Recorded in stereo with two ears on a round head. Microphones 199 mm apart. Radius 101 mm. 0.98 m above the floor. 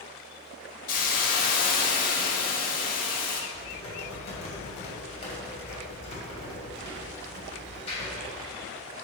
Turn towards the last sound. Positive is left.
turn(degrees=30)  # may be behind; listen again after turning